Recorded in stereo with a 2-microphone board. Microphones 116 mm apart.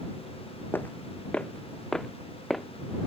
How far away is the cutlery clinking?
I don't hear cutlery clinking.